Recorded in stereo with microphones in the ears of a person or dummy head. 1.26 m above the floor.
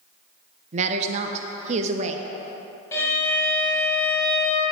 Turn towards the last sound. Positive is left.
turn(degrees=20)  # may be behind; listen again after turning